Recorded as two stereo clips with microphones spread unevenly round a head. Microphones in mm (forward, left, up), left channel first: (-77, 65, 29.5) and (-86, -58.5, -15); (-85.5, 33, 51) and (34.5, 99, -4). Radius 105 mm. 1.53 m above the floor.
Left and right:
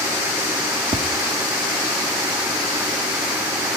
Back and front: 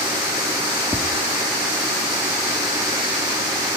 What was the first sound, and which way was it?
Tapping, 135° right.